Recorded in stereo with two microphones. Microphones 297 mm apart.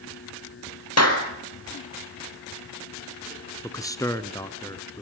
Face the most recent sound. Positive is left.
turn(degrees=10)  # may be behind; listen again after turning